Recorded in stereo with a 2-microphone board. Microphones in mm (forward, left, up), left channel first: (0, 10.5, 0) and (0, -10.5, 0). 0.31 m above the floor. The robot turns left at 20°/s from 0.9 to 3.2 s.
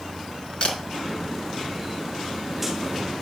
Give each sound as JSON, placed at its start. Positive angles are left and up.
{"t": 0.6, "sound": "a camera shutter", "side_deg": 40, "distance_m": 4.5}